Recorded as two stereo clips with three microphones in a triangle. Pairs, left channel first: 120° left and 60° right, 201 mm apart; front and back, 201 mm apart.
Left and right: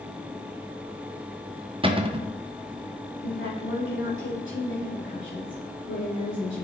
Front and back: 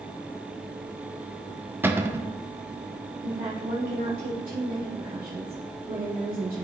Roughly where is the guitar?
No guitar in this recording.